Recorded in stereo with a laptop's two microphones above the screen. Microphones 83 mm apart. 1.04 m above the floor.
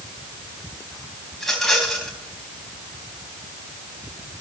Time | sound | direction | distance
1.3 | a rattle | 5° left (ahead or behind) | 4 m